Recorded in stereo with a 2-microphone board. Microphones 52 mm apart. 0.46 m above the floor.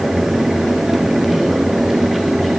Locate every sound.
Only background noise.